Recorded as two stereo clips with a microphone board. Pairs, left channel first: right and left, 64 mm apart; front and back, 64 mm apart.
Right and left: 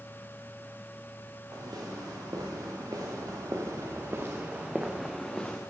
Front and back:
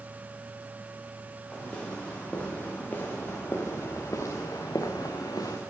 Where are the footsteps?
75° left, 5.5 m; by 5.6 s 15° right, 2.5 m.